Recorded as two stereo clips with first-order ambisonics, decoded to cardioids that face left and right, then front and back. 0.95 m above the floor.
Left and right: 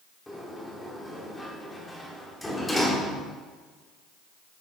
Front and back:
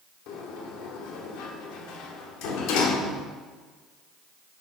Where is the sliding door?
10° left, 1.0 m.